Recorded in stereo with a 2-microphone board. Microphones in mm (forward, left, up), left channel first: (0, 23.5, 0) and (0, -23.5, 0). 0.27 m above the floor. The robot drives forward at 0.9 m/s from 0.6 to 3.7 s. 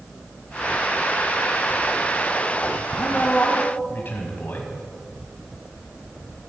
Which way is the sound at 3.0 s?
35° left (ahead or behind).